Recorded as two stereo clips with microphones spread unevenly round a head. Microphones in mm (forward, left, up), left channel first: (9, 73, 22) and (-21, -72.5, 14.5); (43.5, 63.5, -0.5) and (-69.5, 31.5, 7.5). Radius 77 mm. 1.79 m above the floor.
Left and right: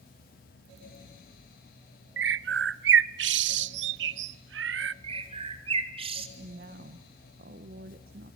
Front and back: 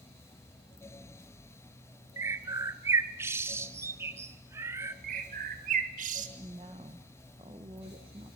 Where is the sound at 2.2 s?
90° right, 0.6 m.